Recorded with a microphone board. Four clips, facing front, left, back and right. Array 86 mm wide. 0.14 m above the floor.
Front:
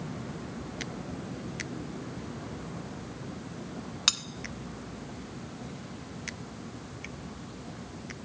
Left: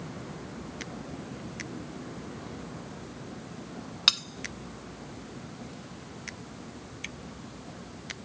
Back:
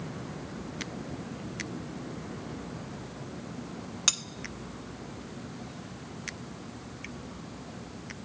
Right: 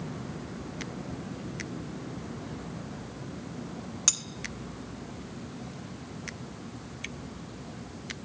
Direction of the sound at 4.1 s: 75° left.